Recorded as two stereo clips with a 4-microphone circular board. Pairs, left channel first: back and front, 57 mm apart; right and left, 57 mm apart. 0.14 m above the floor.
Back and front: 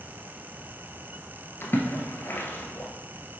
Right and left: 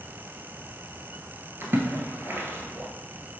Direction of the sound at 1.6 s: 135° left.